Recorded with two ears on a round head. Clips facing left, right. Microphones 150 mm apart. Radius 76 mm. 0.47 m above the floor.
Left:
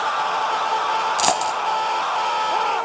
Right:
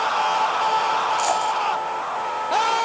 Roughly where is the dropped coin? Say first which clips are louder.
Left 1 dB; left.